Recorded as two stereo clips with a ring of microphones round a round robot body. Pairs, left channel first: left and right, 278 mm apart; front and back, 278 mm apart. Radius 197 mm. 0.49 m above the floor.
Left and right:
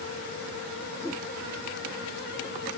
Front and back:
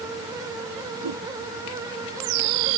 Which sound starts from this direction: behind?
A whoosh, at 1.0 s.